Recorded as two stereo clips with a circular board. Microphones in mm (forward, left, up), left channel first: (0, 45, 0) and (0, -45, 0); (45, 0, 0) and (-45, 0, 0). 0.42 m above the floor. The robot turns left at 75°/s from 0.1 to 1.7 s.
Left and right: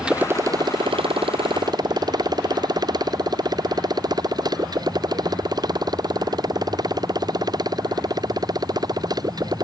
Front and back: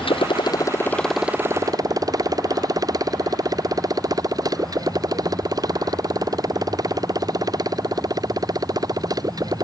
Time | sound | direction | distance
0.0 | a motorcycle | 10° right | ?